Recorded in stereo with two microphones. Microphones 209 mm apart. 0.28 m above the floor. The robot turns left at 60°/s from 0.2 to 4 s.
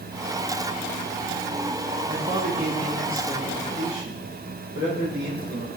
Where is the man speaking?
145° right, 7.5 m; by 5.7 s 100° left, 7.5 m.